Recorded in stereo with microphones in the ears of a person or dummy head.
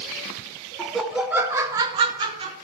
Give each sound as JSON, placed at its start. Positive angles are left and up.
{"t": 0.8, "sound": "laughter", "side_deg": 0, "distance_m": 0.8}